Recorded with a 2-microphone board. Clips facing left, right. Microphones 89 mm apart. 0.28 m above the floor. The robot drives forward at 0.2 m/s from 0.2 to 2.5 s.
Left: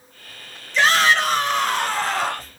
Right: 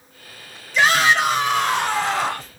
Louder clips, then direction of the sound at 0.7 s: Right 1 dB; 10° right (ahead or behind).